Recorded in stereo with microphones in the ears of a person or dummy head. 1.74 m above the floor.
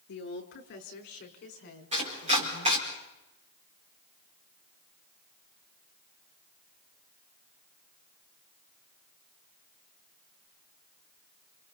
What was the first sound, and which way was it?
A woman speaking, 65° left (ahead or behind).